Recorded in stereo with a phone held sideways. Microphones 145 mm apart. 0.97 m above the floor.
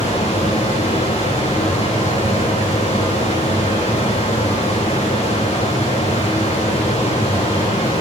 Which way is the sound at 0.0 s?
50° left (ahead or behind).